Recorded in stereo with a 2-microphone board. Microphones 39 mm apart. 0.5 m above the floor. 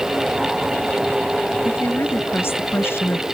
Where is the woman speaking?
80° left.